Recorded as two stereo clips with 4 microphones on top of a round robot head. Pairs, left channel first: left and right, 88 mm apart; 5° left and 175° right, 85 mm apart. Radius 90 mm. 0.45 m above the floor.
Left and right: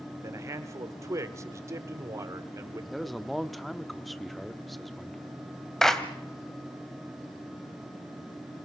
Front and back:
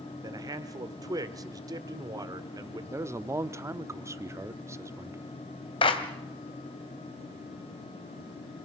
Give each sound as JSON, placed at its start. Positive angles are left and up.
{"t": 0.2, "sound": "a man speaking", "azimuth_deg": -140, "distance_m": 1.5}
{"t": 2.9, "sound": "a man speaking", "azimuth_deg": 180, "distance_m": 0.8}
{"t": 5.8, "sound": "a clap", "azimuth_deg": 5, "distance_m": 1.9}